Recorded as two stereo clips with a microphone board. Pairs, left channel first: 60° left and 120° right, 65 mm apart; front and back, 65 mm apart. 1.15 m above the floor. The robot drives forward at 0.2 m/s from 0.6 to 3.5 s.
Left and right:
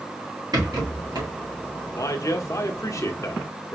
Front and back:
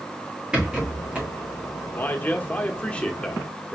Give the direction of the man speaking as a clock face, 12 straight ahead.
10 o'clock.